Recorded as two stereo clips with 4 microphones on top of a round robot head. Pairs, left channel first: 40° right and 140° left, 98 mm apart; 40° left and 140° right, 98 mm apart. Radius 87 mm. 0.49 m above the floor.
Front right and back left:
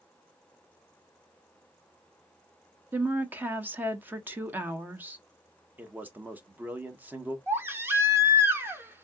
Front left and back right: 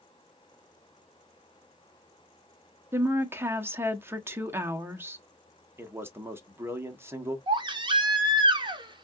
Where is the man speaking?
170° right, 1.0 m.